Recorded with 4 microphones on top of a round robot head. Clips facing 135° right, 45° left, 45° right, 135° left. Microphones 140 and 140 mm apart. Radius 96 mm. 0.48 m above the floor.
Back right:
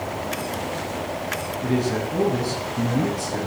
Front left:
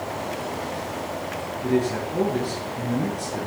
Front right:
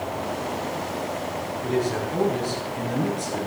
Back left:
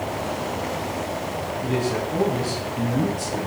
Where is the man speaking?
145° right, 6 m.